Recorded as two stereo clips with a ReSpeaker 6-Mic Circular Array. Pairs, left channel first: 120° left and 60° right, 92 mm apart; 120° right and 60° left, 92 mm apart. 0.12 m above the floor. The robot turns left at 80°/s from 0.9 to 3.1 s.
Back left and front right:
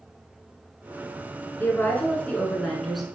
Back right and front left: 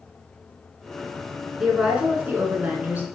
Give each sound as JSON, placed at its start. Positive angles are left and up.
{"t": 1.6, "sound": "a woman speaking", "azimuth_deg": 135, "distance_m": 1.1}